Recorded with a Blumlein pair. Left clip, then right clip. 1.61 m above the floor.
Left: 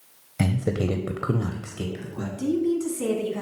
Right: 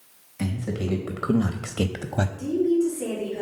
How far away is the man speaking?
About 0.7 m.